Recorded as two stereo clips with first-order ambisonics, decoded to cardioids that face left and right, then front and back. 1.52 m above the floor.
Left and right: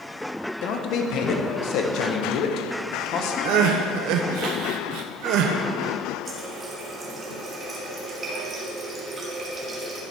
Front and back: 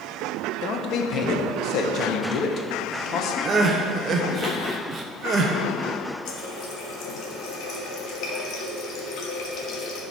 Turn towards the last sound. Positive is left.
turn(degrees=-25)